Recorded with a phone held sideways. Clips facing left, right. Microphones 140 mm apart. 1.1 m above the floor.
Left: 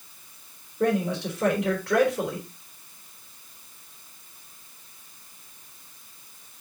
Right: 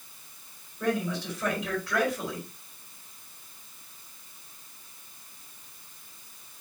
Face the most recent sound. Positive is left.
turn(degrees=80)